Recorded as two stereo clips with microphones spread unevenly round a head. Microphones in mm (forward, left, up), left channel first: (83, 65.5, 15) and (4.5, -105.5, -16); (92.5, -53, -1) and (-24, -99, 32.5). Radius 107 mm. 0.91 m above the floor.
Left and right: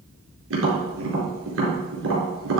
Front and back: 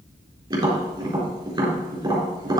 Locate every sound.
0.5 s tapping: 100° right, 4 m